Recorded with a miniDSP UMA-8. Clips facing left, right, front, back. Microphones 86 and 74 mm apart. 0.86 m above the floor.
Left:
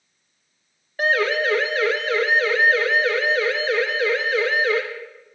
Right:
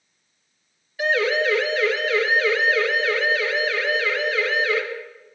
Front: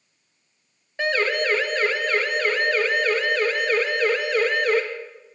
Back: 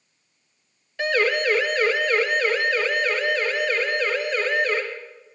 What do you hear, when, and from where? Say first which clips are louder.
1.0 s a siren: even, back 1 dB; 55° left, 3 m; by 4.8 s 25° left, 4 m